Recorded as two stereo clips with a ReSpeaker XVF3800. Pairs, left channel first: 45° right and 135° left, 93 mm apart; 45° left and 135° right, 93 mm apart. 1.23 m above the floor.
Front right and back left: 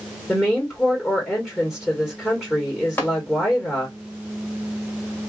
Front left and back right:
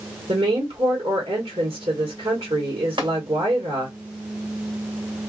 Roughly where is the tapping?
Behind right.